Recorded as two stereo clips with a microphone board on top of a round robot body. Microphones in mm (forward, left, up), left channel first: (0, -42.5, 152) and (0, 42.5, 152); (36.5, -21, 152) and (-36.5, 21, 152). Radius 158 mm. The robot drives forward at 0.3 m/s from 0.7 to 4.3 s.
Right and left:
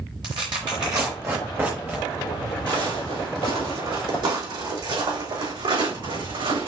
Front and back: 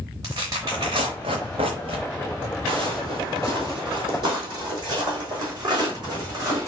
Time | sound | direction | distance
0.2 | tearing paper | 110° left | 0.6 m
2.7 | footsteps | 125° left | 1.5 m